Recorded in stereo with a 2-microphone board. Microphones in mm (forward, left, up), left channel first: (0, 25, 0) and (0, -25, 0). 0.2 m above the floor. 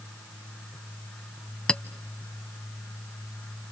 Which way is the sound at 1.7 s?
15° left (ahead or behind).